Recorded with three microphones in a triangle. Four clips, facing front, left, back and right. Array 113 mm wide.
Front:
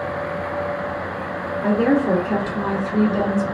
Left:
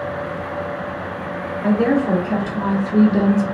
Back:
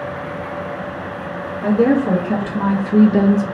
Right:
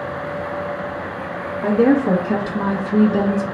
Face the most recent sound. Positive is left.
turn(degrees=175)